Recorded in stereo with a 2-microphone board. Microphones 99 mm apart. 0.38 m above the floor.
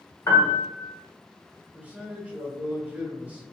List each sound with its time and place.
0.3 s a piano: 40° left (ahead or behind), 0.9 m
1.7 s a man speaking: 15° right (ahead or behind), 0.9 m